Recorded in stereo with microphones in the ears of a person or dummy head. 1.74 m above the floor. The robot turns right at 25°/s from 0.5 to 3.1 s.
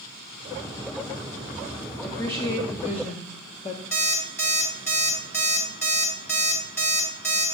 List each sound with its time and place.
2.0 s a woman speaking: 10° left (ahead or behind), 0.7 m; by 3.8 s 30° left (ahead or behind), 0.7 m
3.9 s an alarm clock: 10° left (ahead or behind), 2 m